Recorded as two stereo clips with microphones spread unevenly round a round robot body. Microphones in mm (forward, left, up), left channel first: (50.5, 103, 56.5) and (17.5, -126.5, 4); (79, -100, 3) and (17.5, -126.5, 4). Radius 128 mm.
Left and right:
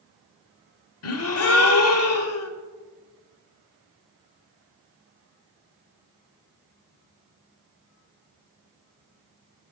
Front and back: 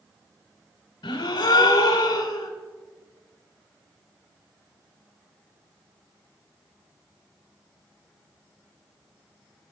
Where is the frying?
I don't hear frying.